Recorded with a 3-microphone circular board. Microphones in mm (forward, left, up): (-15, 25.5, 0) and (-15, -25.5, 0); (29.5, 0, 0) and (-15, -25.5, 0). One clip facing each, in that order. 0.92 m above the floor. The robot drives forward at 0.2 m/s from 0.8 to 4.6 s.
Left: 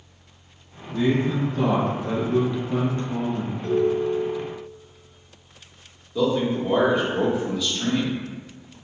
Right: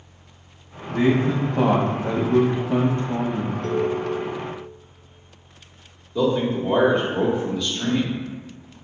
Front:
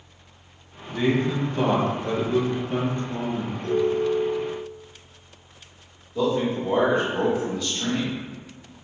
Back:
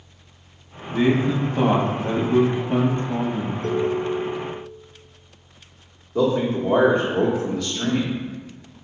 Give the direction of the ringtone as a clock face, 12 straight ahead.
6 o'clock.